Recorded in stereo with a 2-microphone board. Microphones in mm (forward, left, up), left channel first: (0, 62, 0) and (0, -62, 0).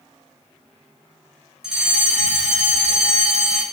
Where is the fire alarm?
5° right (ahead or behind), 8 m.